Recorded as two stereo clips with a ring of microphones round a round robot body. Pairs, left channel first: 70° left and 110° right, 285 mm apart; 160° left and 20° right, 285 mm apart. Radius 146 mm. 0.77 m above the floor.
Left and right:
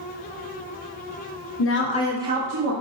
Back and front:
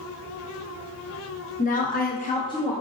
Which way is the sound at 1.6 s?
95° left.